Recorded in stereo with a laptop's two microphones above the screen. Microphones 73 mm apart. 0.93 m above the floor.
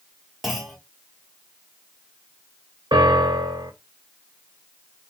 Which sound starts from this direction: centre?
A clunk, at 0.4 s.